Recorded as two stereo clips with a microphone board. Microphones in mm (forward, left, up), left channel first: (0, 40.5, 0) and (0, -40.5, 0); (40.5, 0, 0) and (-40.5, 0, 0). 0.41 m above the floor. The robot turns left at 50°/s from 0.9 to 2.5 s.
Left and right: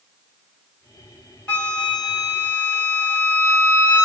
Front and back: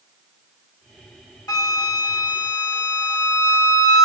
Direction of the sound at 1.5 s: 20° left.